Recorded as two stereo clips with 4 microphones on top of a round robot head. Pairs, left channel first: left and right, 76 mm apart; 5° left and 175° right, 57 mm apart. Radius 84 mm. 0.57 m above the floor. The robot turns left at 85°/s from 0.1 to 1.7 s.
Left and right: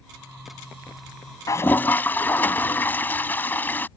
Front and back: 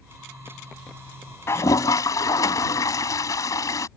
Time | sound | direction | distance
1.5 | a toilet flushing | 45° left | ?